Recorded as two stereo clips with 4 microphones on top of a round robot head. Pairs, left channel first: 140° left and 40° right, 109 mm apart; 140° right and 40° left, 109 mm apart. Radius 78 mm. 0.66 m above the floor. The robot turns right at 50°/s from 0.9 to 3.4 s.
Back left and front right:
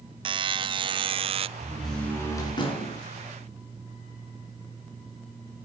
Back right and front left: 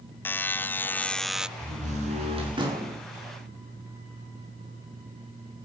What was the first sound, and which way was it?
A buzzer, 70° right.